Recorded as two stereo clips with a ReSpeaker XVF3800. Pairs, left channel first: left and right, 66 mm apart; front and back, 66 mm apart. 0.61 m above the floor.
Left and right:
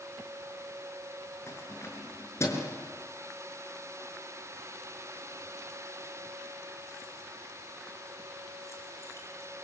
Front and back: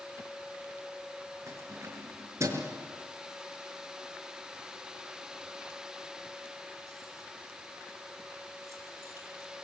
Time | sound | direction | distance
1.5 | keys jangling | 135° left | 6 m